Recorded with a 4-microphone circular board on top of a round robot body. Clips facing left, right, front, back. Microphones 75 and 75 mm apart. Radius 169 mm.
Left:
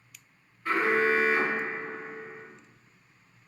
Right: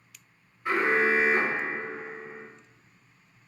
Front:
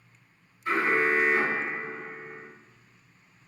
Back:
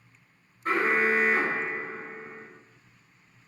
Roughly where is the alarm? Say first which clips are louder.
Right 1 dB, even; behind.